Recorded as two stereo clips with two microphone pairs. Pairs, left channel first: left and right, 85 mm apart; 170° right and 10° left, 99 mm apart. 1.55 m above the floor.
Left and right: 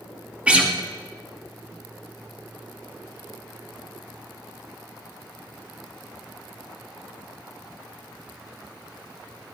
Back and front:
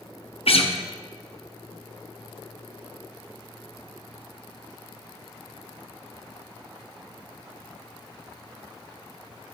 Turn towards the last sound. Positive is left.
turn(degrees=-160)